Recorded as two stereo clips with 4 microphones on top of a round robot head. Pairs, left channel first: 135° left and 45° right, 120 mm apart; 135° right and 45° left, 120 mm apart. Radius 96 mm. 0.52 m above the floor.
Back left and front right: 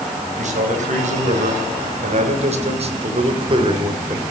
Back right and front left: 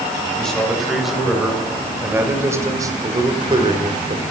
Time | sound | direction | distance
0.4 | a man speaking | 50° right | 3.5 m